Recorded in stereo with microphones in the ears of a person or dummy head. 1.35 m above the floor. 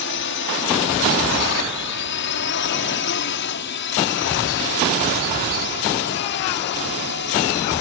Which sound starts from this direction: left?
A drone, at 0.0 s.